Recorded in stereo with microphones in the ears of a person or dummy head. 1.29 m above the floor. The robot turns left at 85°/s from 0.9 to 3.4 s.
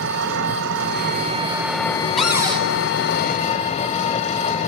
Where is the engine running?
110° right, 2 m; by 4.7 s 40° left, 2 m.